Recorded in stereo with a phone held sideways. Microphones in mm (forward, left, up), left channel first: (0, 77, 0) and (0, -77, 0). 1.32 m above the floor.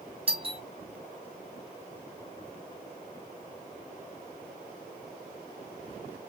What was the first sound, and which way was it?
A doorbell, 35° right (ahead or behind).